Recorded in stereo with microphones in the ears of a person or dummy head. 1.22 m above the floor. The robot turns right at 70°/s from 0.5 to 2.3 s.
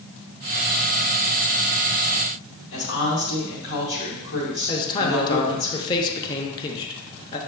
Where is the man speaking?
25° left (ahead or behind), 0.7 m.